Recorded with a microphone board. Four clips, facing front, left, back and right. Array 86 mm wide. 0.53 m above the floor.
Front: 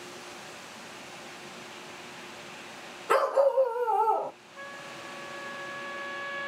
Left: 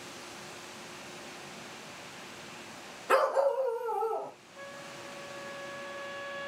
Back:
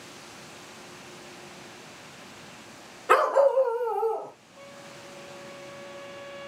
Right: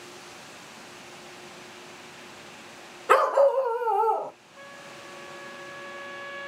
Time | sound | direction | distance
3.1 | a dog barking | 120° right | 1.0 m
4.6 | a trumpet | 20° right | 1.2 m